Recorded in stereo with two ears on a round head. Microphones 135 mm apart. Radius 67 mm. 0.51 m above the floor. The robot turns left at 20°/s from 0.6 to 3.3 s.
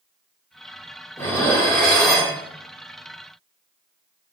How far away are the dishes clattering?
About 0.6 m.